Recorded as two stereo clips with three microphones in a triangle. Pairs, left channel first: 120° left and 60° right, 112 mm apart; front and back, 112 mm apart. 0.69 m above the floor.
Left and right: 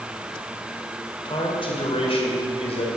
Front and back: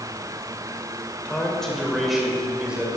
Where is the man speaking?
80° left, 3 m; by 2.9 s 100° left, 3.5 m.